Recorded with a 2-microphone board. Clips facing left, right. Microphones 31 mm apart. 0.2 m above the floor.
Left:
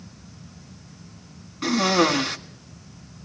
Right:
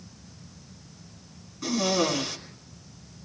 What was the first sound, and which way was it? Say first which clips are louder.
A cough: left 5 dB; 50° left (ahead or behind).